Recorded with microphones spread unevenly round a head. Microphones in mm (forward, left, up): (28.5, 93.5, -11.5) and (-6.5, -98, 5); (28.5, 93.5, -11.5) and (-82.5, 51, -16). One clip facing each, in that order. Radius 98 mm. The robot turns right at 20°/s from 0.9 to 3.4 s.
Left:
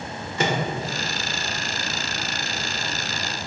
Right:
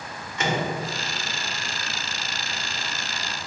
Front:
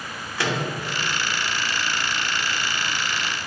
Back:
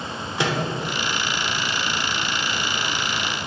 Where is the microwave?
135° left, 1.1 m.